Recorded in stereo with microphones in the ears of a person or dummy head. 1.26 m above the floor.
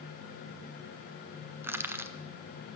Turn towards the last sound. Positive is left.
turn(degrees=-10)  # may be behind; listen again after turning